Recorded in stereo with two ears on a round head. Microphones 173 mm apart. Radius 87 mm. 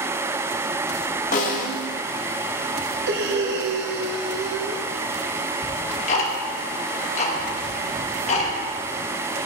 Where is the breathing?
65° right (ahead or behind), 0.8 m.